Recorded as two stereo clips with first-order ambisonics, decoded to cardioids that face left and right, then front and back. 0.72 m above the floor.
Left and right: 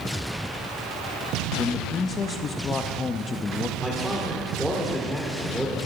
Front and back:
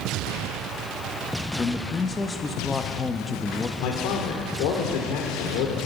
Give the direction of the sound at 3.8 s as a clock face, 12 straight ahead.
12 o'clock.